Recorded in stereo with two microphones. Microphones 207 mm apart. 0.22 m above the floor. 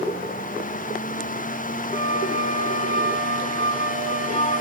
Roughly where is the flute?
Left.